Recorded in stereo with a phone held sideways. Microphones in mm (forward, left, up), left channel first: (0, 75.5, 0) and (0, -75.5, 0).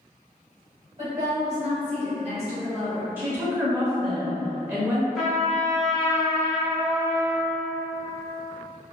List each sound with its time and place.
1.0 s a woman speaking: 45° right (ahead or behind), 1.6 m; by 3.1 s 40° right (ahead or behind), 0.9 m
3.2 s a woman speaking: 15° right (ahead or behind), 0.7 m
5.2 s a trumpet: centre (ahead or behind), 1.0 m